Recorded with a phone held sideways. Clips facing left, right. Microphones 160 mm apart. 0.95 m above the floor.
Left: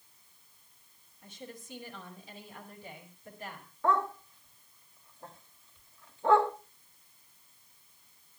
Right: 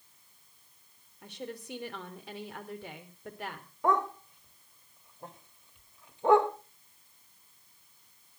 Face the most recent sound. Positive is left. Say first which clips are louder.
# right 1 dB
turn(degrees=-15)  # may be behind; listen again after turning